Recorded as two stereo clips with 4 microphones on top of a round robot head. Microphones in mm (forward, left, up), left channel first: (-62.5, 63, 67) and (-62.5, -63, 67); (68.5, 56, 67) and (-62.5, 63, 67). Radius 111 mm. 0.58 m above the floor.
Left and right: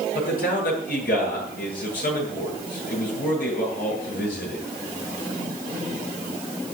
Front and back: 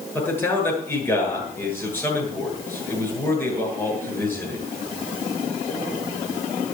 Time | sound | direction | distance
0.1 | a man speaking | 70° left | 8.5 m